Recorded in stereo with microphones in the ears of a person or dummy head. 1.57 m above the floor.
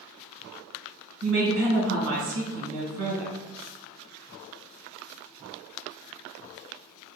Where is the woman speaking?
65° right (ahead or behind), 1.3 m.